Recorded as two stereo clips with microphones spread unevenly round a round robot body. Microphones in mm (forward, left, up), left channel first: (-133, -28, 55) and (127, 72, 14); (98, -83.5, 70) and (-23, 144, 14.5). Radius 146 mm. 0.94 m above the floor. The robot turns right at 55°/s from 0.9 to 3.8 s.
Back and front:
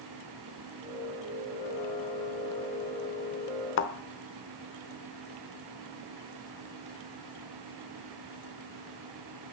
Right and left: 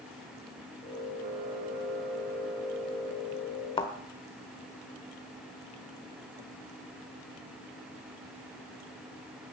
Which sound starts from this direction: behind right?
A thud, at 3.8 s.